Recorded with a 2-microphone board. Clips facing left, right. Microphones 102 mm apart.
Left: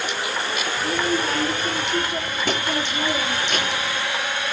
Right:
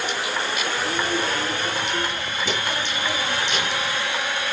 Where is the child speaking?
70° left (ahead or behind), 3.5 m; by 4.0 s 55° left (ahead or behind), 4.5 m.